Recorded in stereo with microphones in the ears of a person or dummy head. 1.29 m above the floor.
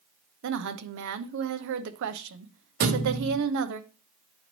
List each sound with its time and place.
0.4 s a woman speaking: 65° right (ahead or behind), 0.7 m
2.8 s a thud: 35° right (ahead or behind), 0.8 m